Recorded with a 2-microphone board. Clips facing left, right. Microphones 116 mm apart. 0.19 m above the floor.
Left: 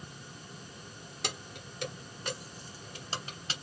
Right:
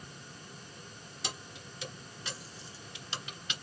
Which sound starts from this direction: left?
Keys jangling, at 1.2 s.